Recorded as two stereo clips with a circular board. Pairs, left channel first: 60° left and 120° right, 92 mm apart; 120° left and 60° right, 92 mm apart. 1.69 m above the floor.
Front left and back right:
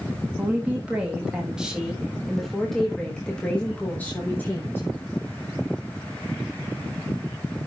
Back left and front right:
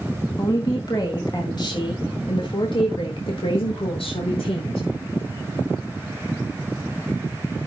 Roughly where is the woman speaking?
Behind.